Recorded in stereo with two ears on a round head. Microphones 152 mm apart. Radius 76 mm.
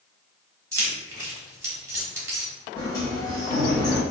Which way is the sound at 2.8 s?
20° left (ahead or behind).